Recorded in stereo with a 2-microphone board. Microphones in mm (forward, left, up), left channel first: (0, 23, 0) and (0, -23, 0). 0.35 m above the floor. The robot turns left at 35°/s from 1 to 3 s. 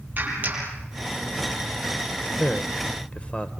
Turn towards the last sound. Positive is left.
turn(degrees=25)  # may be behind; listen again after turning